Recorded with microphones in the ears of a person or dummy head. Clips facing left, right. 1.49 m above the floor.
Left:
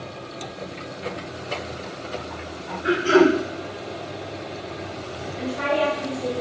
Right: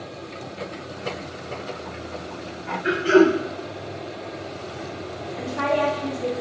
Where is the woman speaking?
65° right (ahead or behind), 0.8 m.